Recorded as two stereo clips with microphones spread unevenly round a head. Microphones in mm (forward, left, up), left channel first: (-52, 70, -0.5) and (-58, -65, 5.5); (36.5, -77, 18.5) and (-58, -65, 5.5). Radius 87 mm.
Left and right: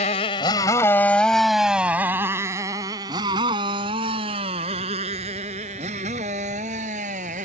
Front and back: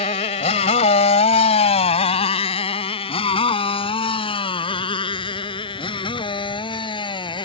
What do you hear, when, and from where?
0.0 s a motorcycle: 35° left; by 7.5 s 40° right